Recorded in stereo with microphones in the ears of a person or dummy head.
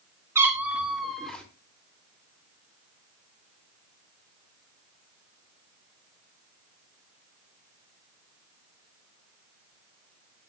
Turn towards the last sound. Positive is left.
turn(degrees=10)  # may be behind; listen again after turning